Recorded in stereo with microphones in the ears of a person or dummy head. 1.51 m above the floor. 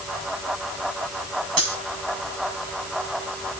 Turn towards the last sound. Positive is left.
turn(degrees=-45)  # may be behind; listen again after turning